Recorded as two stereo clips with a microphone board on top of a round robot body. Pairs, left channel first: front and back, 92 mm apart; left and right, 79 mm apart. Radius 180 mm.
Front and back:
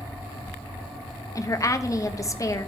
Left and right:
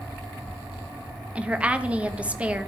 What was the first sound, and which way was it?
A woman speaking, 25° right.